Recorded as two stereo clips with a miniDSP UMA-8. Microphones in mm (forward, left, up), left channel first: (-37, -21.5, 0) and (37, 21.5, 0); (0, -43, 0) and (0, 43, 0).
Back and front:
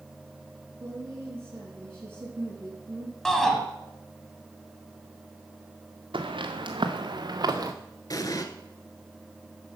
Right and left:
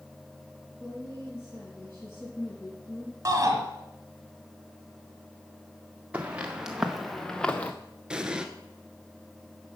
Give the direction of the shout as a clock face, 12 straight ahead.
8 o'clock.